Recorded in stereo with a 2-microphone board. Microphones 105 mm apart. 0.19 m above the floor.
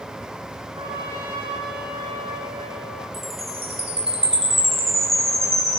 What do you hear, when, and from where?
0.8 s a trumpet: 45° right (ahead or behind), 9.5 m
3.1 s a chime: 65° right (ahead or behind), 7.5 m